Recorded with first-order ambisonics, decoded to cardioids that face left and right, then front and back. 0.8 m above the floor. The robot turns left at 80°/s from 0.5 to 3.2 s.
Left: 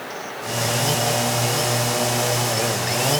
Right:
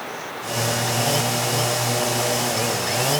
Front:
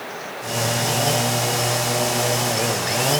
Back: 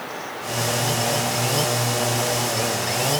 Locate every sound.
Only background noise.